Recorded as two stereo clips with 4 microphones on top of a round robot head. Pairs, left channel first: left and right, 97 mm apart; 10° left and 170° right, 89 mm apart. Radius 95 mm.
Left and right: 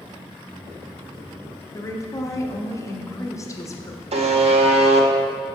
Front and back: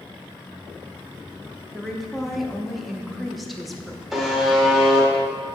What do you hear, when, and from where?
1.7 s a woman speaking: 100° left, 0.9 m
4.1 s a buzzer: 80° right, 0.7 m